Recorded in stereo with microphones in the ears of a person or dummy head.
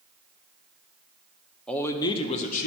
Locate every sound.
1.7 s a man speaking: 5° left (ahead or behind), 0.8 m; by 2.7 s 50° left (ahead or behind), 0.9 m